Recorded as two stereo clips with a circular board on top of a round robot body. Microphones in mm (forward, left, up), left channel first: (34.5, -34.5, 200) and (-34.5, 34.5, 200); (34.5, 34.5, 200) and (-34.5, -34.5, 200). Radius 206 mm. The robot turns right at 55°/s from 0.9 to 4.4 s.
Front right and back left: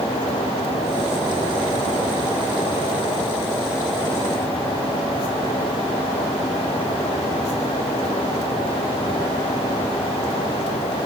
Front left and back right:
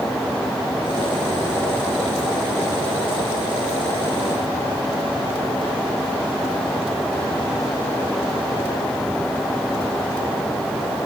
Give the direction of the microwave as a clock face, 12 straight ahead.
No microwave in this recording.